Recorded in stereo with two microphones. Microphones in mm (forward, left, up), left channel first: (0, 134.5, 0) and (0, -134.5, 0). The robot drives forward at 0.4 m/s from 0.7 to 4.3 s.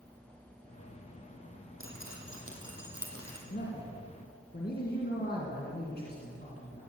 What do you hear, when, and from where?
1.8 s dripping: 50° right (ahead or behind), 3 m; by 3.4 s 60° right (ahead or behind), 2.5 m
3.5 s a man speaking: 40° left (ahead or behind), 2 m; by 6.9 s 35° left (ahead or behind), 2.5 m